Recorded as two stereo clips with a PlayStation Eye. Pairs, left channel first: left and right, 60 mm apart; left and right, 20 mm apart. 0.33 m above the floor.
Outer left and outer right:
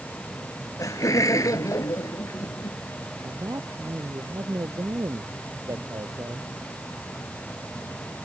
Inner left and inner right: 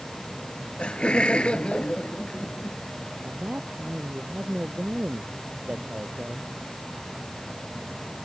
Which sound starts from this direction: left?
Laughter, at 0.8 s.